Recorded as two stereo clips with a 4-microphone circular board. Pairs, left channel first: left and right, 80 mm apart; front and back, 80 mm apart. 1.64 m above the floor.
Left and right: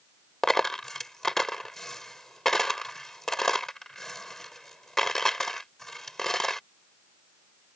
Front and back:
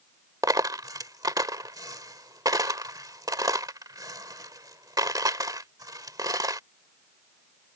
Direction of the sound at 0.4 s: 175° left.